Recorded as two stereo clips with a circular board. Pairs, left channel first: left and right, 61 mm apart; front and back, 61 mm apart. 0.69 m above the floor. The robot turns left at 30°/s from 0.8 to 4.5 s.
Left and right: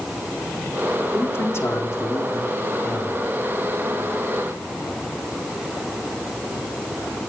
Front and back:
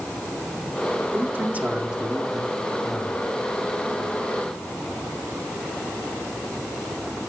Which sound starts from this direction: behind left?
A man speaking, at 1.1 s.